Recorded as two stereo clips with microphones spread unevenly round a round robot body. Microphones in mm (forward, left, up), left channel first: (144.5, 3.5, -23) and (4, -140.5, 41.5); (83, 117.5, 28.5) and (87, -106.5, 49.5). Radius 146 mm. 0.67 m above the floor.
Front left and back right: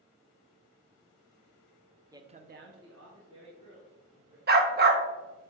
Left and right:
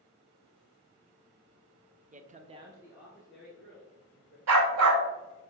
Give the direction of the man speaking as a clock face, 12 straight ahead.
2 o'clock.